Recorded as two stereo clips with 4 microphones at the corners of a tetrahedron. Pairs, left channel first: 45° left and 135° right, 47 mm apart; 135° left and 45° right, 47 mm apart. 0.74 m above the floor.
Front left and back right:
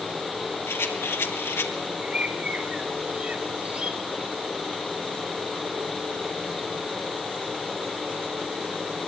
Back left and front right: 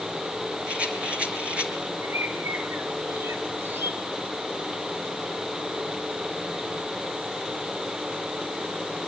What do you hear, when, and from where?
0.7 s a rattle: 20° left, 3.5 m
2.0 s a bird: 70° right, 3 m